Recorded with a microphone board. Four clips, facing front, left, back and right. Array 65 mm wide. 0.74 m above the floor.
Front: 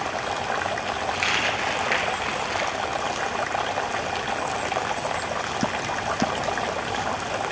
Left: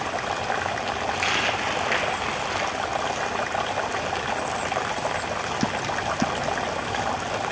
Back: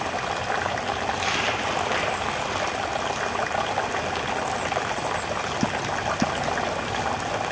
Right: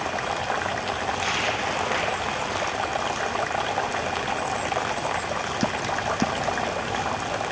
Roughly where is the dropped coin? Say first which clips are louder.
Left 2 dB, front 2 dB; ahead left.